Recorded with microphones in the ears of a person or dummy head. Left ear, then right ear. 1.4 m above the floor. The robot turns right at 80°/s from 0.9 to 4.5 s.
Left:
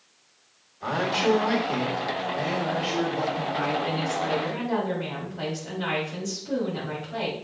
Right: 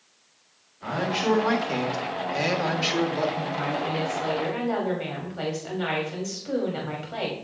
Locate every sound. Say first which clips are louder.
0.8 s a man speaking: left 2 dB; 160° left, 1.4 m; by 3.5 s 5° left, 1.4 m
3.5 s a woman speaking: left 1 dB; 145° left, 3 m; by 7.3 s 140° right, 3 m